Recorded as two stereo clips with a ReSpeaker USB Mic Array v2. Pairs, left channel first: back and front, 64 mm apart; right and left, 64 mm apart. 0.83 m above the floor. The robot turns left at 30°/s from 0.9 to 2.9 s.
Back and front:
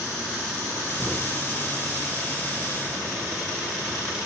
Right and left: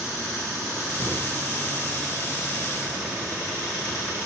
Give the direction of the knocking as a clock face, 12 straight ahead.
8 o'clock.